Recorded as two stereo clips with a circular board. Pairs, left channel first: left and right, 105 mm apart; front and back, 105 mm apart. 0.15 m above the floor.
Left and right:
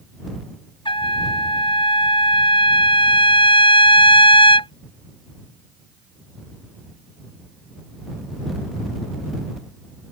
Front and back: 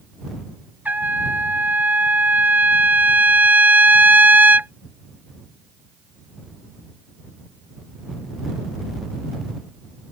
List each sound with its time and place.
0.8 s a trumpet: 110° left